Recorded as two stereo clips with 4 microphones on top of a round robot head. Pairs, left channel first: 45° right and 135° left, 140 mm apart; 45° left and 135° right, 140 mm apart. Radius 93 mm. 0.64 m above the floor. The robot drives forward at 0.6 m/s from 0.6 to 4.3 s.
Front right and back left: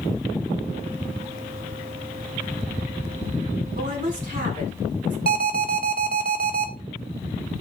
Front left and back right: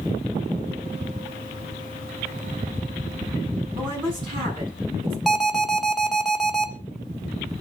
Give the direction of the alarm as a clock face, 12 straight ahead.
8 o'clock.